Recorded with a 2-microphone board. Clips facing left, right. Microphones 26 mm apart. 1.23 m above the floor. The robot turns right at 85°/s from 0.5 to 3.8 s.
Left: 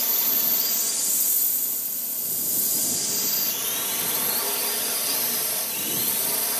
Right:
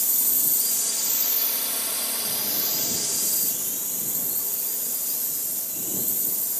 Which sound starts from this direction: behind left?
A drone, at 0.0 s.